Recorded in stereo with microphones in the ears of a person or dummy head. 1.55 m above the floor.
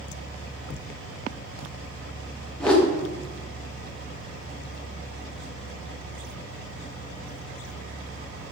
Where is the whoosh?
10° left (ahead or behind), 0.8 m.